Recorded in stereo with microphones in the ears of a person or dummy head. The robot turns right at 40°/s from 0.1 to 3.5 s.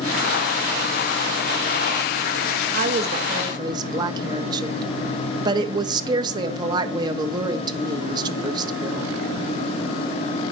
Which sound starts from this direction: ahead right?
A woman speaking, at 2.7 s.